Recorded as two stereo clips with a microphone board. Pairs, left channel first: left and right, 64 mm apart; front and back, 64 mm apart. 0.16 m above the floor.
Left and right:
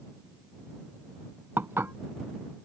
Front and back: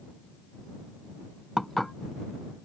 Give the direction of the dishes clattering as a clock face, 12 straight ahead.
3 o'clock.